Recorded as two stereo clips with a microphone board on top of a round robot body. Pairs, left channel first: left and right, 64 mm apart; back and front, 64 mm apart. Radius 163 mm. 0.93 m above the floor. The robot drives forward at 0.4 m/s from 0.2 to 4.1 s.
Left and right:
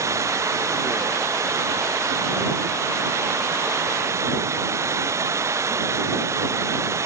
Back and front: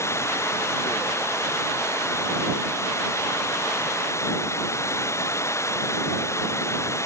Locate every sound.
0.0 s running water: 135° right